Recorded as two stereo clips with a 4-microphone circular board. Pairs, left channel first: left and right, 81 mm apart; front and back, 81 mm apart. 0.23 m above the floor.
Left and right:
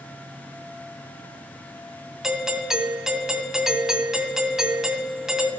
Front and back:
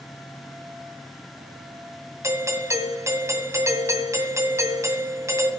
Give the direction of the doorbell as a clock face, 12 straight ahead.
6 o'clock.